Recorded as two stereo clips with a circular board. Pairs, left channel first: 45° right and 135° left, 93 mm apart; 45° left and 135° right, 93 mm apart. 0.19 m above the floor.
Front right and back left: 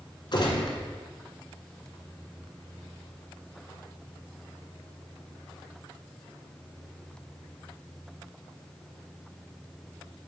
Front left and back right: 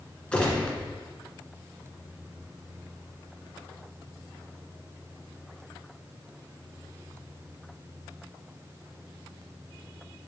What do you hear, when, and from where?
0.3 s a gunshot: 30° right, 1.8 m